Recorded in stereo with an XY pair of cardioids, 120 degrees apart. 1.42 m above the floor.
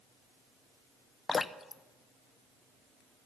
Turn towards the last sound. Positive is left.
turn(degrees=35)